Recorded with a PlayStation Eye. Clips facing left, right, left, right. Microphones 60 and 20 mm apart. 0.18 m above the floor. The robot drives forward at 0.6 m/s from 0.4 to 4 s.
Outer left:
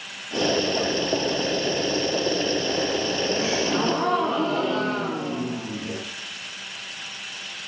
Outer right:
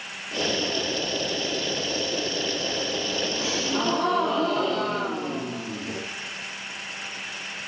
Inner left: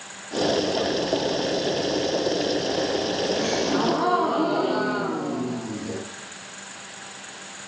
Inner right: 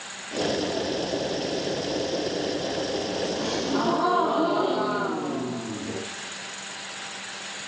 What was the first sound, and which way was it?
A gasp, 40° left (ahead or behind).